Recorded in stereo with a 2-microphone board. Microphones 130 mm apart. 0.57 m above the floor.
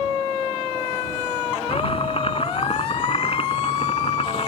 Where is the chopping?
50° left (ahead or behind).